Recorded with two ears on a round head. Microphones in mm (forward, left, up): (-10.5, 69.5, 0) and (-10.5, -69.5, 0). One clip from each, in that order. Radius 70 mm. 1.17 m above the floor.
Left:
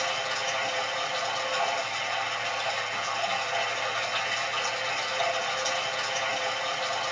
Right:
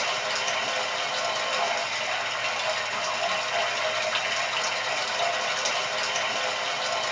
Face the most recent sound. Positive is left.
turn(degrees=-35)  # may be behind; listen again after turning